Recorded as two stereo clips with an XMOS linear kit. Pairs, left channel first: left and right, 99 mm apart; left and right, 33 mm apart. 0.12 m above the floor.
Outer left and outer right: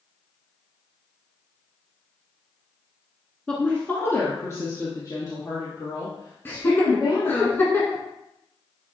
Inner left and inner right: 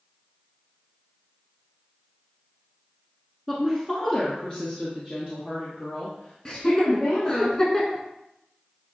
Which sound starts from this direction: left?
Laughter, at 6.5 s.